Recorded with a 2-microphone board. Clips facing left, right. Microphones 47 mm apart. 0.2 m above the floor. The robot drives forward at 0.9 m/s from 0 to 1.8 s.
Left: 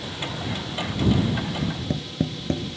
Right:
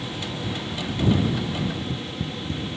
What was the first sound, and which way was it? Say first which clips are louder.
Tapping: even; 80° left.